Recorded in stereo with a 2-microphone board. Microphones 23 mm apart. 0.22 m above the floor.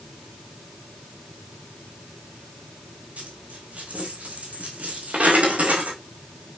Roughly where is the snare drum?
I don't hear a snare drum.